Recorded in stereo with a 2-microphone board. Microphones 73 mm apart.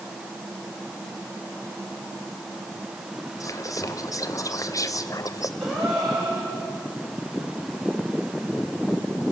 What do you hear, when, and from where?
3.4 s whispering: 50° left (ahead or behind), 0.5 m
5.6 s a gasp: 5° right (ahead or behind), 7 m